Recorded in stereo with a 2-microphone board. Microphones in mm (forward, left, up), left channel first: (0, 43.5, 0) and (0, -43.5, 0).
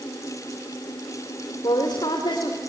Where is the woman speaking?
65° left (ahead or behind), 2.5 m.